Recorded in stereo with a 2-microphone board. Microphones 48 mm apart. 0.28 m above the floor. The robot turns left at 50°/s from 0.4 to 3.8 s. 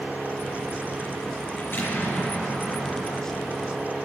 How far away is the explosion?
About 4 m.